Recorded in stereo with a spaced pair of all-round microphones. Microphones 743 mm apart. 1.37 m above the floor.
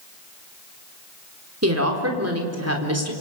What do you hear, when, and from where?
1.6 s a woman speaking: 20° right (ahead or behind), 3.5 m